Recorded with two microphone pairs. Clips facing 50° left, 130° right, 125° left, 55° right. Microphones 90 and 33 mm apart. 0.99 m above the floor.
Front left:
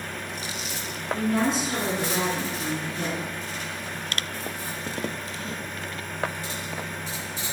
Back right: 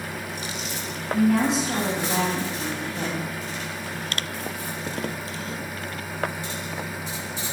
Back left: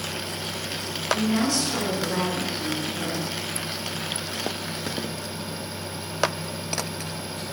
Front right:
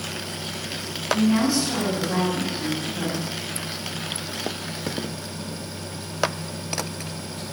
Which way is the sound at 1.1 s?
125° right.